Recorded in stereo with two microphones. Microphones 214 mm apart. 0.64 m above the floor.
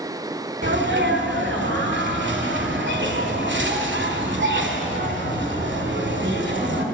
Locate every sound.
0.6 s a sneeze: 60° right (ahead or behind), 1.9 m